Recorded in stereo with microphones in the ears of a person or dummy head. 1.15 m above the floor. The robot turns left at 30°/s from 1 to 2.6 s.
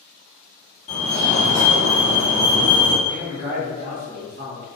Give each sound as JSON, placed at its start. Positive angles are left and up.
{"t": 0.9, "sound": "a fire alarm", "side_deg": 30, "distance_m": 1.4}
{"t": 3.0, "sound": "a man speaking", "side_deg": -45, "distance_m": 1.8}